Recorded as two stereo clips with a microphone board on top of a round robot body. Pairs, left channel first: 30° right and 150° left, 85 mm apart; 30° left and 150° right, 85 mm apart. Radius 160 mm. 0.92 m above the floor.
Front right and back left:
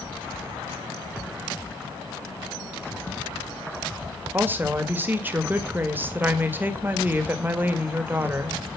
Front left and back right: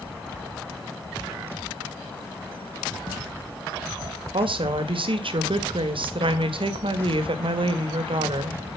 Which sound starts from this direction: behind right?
A woman speaking, at 4.3 s.